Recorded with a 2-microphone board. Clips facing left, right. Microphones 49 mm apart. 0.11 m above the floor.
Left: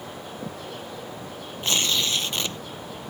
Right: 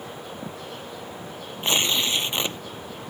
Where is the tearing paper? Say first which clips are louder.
Right 1 dB; 25° right (ahead or behind).